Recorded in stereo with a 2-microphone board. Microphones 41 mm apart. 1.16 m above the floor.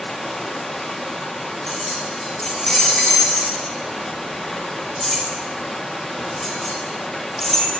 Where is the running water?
5° left (ahead or behind), 1.9 m.